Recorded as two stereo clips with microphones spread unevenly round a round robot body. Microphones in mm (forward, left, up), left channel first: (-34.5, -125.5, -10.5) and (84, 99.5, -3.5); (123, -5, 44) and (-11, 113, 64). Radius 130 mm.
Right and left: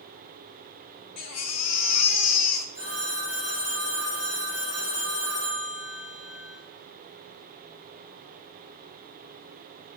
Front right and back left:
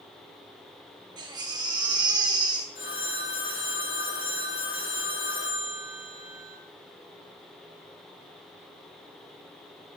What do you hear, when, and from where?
1.2 s a baby crying: 150° right, 1.4 m
2.8 s a phone ringing: 55° right, 7.5 m